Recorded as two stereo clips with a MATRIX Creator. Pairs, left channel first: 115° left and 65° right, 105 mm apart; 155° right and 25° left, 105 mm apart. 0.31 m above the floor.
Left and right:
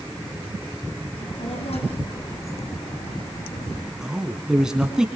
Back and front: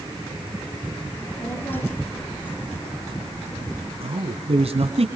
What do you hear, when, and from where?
1.1 s a child speaking: 130° left, 8 m; by 3.9 s 125° left, 9 m
4.0 s a man speaking: 15° left, 2.5 m